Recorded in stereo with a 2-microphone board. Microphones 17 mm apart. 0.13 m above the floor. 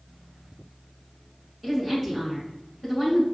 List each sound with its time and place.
1.6 s a woman speaking: 5° right (ahead or behind), 1.2 m